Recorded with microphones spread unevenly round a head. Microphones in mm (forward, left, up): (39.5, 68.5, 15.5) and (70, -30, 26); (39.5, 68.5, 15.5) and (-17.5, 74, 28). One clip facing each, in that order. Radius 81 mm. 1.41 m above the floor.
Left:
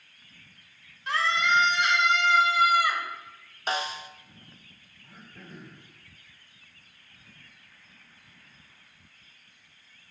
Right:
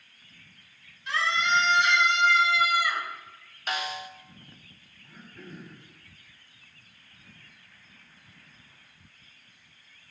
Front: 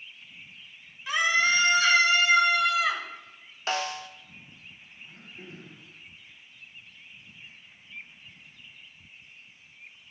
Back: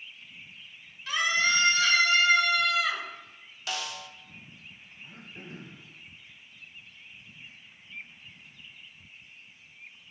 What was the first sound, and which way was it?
A scream, 65° left.